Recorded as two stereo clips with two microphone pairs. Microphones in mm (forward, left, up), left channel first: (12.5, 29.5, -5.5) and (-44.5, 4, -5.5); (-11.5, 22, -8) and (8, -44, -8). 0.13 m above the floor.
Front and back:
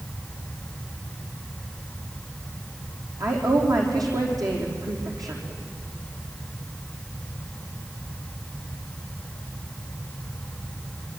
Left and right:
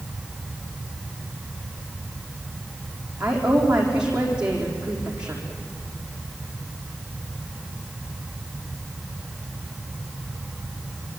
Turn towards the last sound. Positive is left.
turn(degrees=-150)